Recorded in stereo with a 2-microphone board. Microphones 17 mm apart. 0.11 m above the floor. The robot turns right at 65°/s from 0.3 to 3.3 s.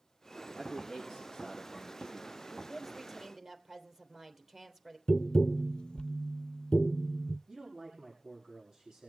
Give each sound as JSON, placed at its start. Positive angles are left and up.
{"t": 0.5, "sound": "a man speaking", "azimuth_deg": 70, "distance_m": 7.0}
{"t": 2.7, "sound": "a woman speaking", "azimuth_deg": 170, "distance_m": 3.0}
{"t": 5.1, "sound": "tapping", "side_deg": 60, "distance_m": 0.5}
{"t": 7.5, "sound": "a man speaking", "side_deg": -50, "distance_m": 6.0}